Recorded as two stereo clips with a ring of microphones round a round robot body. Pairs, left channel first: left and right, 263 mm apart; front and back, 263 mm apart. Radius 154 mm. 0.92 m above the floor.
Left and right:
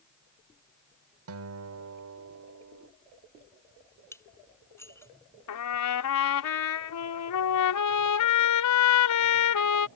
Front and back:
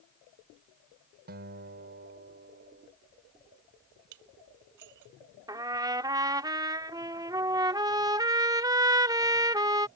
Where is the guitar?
120° right.